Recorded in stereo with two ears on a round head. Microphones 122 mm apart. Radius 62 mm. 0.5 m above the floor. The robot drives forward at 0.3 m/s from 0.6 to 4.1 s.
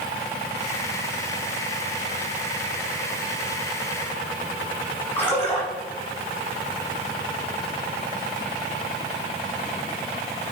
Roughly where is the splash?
Centre.